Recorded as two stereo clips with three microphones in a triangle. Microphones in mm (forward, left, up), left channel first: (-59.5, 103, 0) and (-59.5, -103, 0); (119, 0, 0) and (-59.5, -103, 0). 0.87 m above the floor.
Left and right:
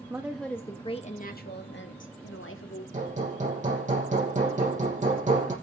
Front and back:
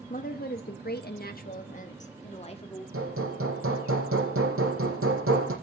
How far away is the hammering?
About 8 m.